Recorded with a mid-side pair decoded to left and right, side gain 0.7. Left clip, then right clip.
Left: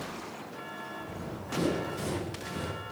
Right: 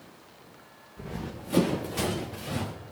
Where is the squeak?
No squeak in this recording.